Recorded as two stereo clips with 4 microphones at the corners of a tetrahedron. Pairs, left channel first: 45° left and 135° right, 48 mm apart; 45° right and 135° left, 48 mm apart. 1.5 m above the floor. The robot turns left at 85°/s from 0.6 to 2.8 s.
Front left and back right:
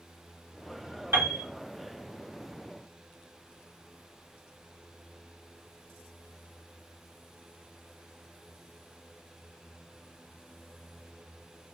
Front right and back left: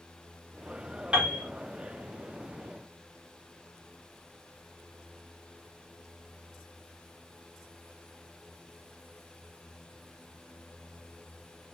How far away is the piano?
About 1.9 m.